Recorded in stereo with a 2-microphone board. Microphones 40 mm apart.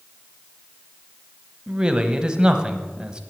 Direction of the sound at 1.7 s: 20° right (ahead or behind).